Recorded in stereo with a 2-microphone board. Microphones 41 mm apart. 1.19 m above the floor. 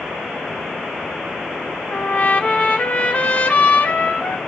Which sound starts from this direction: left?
A trumpet, at 1.9 s.